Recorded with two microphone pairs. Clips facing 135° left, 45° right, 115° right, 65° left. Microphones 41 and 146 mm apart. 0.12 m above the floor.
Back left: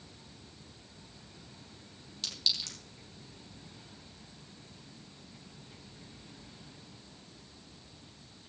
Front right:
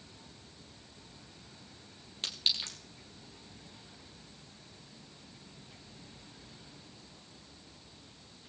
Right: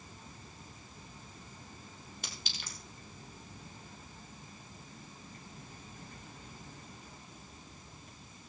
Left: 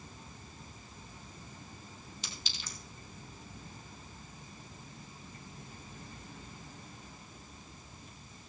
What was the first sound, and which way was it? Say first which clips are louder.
A clink: front right 1 dB, right 1 dB; 95° right.